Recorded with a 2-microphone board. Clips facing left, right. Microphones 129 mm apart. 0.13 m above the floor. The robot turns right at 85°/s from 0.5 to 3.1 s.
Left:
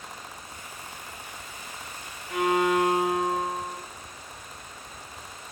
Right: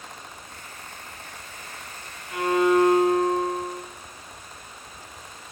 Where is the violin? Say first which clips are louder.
Right 3 dB; 25° left (ahead or behind), 0.7 m; by 3.8 s 15° left (ahead or behind), 0.7 m.